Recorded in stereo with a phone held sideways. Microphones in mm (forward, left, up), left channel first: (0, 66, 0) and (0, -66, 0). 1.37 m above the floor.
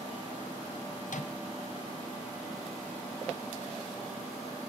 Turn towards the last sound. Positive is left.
turn(degrees=70)  # may be behind; listen again after turning